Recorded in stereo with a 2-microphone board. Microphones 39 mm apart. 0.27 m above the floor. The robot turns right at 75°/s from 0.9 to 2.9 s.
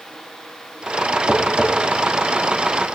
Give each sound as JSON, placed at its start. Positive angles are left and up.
{"t": 1.3, "sound": "tapping", "side_deg": 0, "distance_m": 2.0}